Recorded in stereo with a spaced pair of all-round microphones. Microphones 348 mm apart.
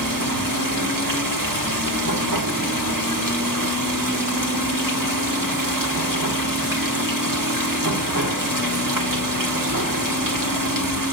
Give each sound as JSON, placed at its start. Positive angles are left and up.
{"t": 0.0, "sound": "running water", "side_deg": -65, "distance_m": 1.1}